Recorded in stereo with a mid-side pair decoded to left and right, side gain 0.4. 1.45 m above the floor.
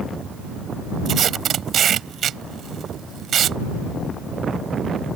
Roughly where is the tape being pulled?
Ahead right.